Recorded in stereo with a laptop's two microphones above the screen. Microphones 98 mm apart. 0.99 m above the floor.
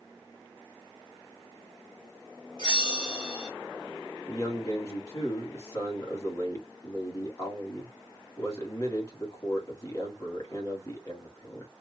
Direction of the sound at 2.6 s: 45° left (ahead or behind).